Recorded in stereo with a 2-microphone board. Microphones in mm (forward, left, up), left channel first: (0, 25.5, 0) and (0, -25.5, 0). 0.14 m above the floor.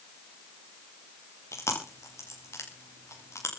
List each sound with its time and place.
1.5 s chewing: 75° left (ahead or behind), 6 m